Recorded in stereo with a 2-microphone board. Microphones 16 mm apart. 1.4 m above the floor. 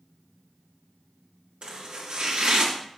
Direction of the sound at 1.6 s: 75° right (ahead or behind).